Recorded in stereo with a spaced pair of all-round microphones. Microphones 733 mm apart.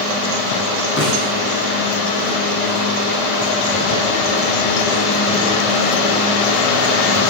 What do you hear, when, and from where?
1.0 s a snare drum: 20° left (ahead or behind), 9 m